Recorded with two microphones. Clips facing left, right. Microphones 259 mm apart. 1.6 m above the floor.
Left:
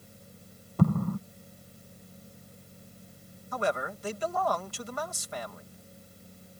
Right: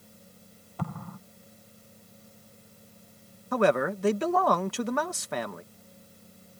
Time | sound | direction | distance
0.8 | an explosion | 45° left (ahead or behind) | ?
3.5 | a man speaking | 70° right (ahead or behind) | ?